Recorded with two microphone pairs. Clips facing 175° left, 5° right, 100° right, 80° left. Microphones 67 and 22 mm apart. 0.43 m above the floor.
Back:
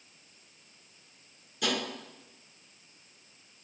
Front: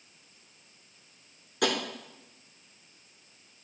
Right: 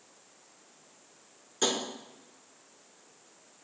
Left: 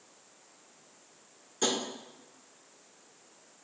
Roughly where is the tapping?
Ahead right.